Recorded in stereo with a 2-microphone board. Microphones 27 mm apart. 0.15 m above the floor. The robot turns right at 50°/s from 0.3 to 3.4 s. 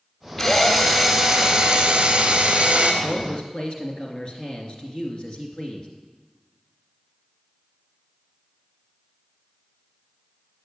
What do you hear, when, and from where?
0.4 s a drill: 175° left, 1.8 m; by 2.9 s 55° right, 1.8 m
3.0 s a man speaking: 50° left (ahead or behind), 2 m; by 5.9 s 35° left (ahead or behind), 2 m